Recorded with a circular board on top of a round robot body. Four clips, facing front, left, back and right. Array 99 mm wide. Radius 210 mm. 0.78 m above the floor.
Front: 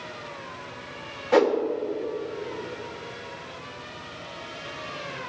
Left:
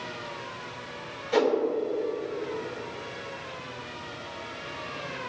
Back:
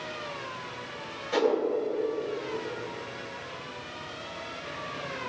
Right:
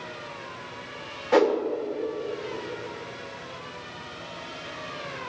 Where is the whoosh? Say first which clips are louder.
Right 3 dB, front 5 dB; 50° right, 1.9 m.